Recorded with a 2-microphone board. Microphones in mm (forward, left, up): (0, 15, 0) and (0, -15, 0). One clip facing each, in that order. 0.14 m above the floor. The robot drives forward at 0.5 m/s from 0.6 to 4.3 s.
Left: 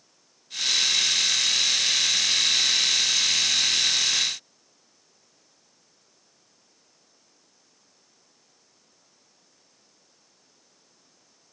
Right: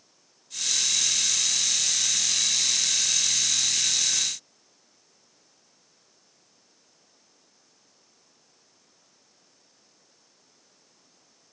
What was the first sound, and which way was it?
Only background noise.